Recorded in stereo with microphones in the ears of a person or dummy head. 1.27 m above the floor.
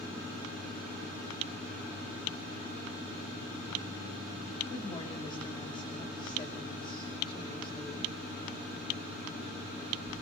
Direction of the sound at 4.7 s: 25° left (ahead or behind).